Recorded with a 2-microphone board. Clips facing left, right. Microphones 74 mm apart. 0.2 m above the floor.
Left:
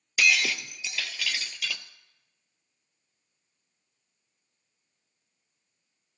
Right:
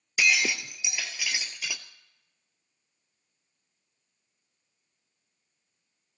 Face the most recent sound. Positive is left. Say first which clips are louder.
# even
turn(degrees=-15)  # may be behind; listen again after turning